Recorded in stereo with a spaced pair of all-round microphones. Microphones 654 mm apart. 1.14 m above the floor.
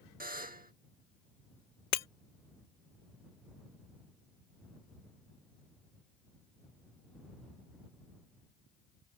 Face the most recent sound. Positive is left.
turn(degrees=70)  # may be behind; listen again after turning